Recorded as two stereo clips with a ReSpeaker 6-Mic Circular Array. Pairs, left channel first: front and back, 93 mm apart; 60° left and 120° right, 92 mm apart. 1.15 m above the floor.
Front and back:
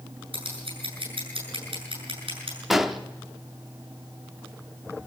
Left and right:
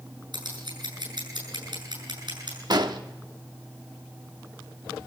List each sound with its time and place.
0.3 s scissors: 155° right, 8 m
2.7 s an explosion: 90° right, 1.0 m